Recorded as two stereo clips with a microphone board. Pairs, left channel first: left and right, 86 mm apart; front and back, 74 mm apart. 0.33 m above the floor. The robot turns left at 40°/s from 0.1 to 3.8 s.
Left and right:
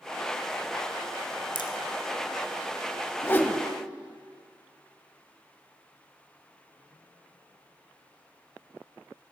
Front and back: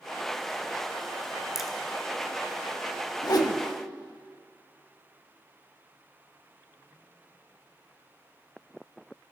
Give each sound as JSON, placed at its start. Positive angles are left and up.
{"t": 1.6, "sound": "a crack", "azimuth_deg": 95, "distance_m": 1.0}
{"t": 3.2, "sound": "a whoosh", "azimuth_deg": 30, "distance_m": 0.6}